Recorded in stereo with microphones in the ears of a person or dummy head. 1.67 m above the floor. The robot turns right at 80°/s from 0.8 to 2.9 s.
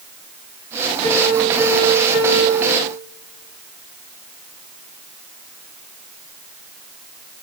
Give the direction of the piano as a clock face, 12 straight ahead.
7 o'clock.